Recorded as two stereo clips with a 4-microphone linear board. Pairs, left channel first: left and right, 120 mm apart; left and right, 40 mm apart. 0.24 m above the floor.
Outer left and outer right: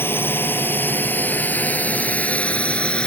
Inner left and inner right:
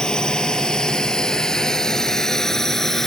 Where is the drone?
20° left (ahead or behind); by 3.1 s 10° left (ahead or behind).